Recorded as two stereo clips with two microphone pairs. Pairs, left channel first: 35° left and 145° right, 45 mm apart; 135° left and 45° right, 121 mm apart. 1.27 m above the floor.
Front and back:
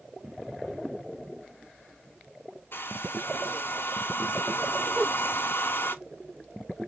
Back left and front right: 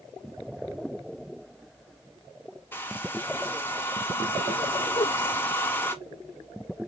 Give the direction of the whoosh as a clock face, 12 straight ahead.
7 o'clock.